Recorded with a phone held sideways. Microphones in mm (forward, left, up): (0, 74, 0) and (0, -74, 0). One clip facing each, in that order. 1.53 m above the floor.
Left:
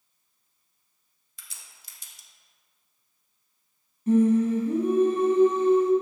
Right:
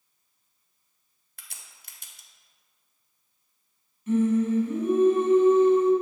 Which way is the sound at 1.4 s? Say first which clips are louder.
Right 1 dB; 60° right (ahead or behind).